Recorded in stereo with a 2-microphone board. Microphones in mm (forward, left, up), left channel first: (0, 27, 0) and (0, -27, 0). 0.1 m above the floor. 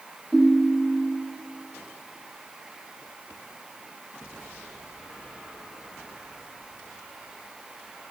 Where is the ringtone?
10° left (ahead or behind), 0.9 m.